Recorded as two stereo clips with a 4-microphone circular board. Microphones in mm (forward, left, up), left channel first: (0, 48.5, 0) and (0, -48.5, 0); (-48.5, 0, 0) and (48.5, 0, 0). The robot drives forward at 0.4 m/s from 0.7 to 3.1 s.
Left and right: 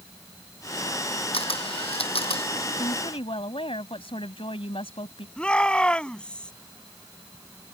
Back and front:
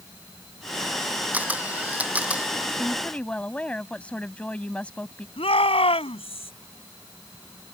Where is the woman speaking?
100° left; by 5.3 s 105° left.